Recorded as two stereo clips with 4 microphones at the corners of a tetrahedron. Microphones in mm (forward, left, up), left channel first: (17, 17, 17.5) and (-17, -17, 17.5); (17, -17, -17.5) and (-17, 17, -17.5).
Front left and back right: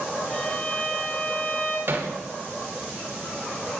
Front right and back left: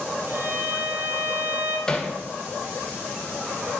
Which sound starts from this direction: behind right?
Hammering, at 1.9 s.